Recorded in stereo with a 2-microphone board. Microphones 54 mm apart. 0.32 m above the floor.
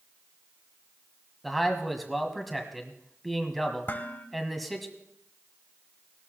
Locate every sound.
1.4 s a man speaking: centre (ahead or behind), 1.8 m
3.9 s dishes clattering: 40° left (ahead or behind), 1.1 m